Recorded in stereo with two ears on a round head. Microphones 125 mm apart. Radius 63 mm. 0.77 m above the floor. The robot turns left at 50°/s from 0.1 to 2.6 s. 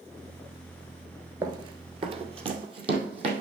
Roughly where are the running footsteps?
Right.